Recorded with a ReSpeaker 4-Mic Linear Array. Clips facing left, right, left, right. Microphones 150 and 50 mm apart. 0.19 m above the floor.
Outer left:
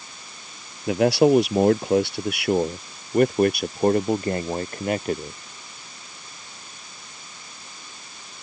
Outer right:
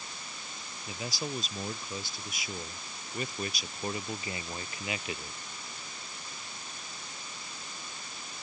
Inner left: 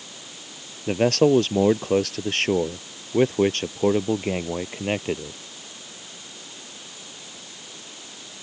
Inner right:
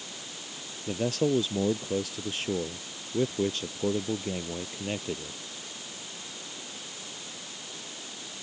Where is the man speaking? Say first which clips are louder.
Outer left 21 dB, inner left 9 dB; 70° left (ahead or behind); by 5.4 s 45° left (ahead or behind).